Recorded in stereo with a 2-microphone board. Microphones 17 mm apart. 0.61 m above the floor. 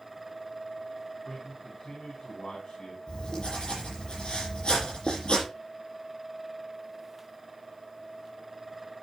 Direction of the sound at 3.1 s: 55° left (ahead or behind).